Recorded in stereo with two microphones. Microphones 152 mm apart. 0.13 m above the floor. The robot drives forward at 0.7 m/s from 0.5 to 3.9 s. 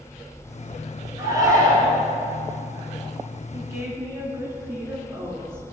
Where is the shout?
25° right (ahead or behind), 1.5 m; by 2.0 s 20° right (ahead or behind), 1.9 m.